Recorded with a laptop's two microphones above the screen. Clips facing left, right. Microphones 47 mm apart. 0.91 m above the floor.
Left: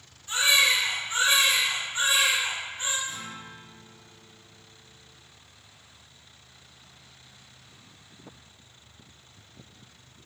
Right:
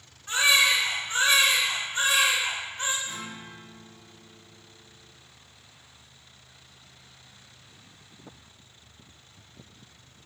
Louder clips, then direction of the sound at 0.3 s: Right 1 dB; 70° right (ahead or behind).